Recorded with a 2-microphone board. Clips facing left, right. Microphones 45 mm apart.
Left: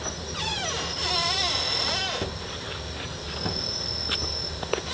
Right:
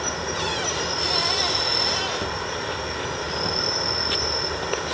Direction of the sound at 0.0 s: 65° right (ahead or behind).